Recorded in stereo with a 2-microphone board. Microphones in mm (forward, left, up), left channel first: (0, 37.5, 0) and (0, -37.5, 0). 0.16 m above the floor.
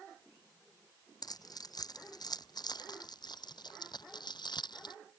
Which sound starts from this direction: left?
Keys jangling, at 1.2 s.